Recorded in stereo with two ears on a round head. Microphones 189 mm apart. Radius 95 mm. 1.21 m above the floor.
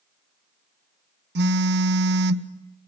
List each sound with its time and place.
1.4 s a phone buzzing: 55° right (ahead or behind), 0.9 m